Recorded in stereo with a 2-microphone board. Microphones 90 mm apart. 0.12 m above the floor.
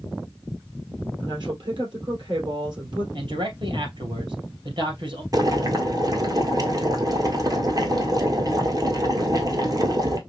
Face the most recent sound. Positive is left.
turn(degrees=-40)  # may be behind; listen again after turning